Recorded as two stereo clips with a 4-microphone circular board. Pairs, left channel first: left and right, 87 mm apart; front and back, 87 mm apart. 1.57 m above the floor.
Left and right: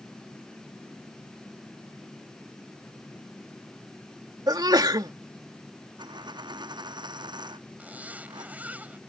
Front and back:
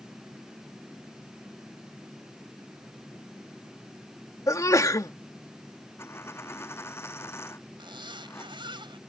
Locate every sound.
4.5 s a sneeze: 50° right
6.0 s a dropped coin: 60° right
7.8 s a zipper: 160° right